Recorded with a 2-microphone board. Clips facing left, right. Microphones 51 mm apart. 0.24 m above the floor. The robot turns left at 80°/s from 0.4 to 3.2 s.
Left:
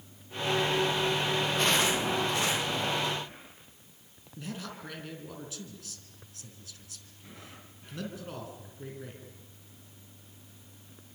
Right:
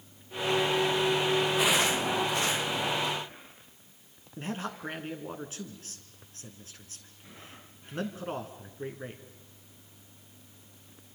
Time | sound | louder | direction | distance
4.4 | a man speaking | right 5 dB | 35° right (ahead or behind) | 2.5 m